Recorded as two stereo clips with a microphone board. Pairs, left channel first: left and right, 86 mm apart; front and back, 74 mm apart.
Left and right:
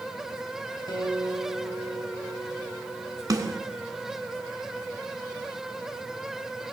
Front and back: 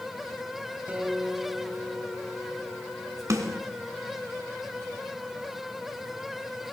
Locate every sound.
0.9 s a guitar: 110° left, 2.5 m
3.3 s a snare drum: 135° right, 1.5 m